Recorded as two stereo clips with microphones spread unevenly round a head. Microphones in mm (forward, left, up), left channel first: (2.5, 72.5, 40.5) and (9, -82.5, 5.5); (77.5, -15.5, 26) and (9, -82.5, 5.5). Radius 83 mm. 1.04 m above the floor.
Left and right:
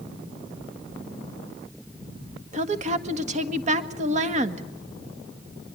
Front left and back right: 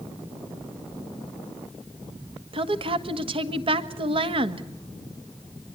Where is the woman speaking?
125° right, 1.7 m.